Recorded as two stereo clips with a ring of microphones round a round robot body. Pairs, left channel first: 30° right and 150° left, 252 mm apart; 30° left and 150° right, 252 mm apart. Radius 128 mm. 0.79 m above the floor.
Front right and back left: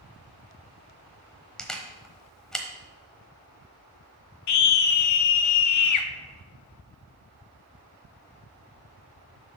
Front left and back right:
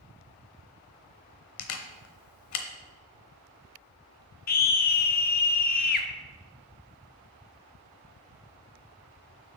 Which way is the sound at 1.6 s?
55° left.